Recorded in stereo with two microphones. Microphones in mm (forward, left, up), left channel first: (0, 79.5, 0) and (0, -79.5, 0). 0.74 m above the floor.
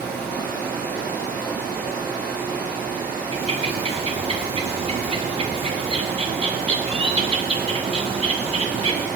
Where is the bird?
40° right (ahead or behind), 0.9 m.